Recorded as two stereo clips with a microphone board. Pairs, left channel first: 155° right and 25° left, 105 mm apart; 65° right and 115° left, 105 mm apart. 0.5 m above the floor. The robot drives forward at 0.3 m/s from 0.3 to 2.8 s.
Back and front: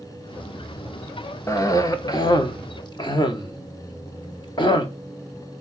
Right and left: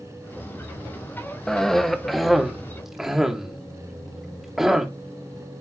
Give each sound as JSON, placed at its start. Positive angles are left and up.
{"t": 1.5, "sound": "a cough", "azimuth_deg": -140, "distance_m": 1.0}